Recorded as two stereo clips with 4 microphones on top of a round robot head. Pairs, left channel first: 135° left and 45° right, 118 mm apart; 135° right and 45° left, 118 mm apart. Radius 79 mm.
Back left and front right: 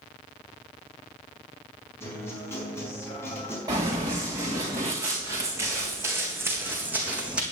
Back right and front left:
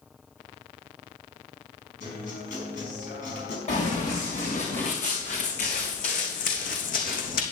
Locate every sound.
2.0 s a guitar: 150° right, 4.5 m
3.7 s running footsteps: 100° right, 4.5 m; by 7.4 s 125° right, 2.5 m